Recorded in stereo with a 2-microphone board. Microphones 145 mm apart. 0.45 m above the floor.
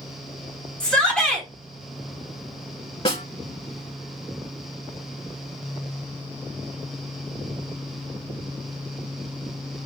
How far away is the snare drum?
About 0.7 m.